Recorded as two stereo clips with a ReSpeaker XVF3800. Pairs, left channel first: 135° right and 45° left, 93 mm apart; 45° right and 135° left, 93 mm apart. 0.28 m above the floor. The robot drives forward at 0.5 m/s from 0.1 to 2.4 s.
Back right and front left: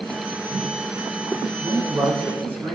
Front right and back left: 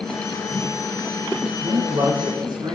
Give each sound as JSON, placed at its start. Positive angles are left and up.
{"t": 1.6, "sound": "a man speaking", "azimuth_deg": 100, "distance_m": 3.0}